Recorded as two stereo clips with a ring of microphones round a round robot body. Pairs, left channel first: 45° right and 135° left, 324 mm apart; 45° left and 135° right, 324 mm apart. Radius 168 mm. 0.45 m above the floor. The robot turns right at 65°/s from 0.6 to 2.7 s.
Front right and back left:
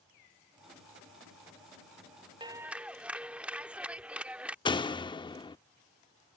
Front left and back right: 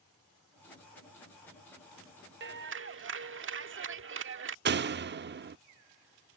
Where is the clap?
160° right; by 4.5 s 140° right.